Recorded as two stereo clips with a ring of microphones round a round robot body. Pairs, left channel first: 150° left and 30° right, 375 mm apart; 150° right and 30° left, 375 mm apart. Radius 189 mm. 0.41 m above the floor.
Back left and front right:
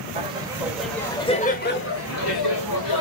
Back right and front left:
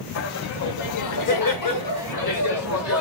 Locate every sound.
0.1 s laughter: 105° right, 1.6 m; by 3.0 s 165° left, 1.6 m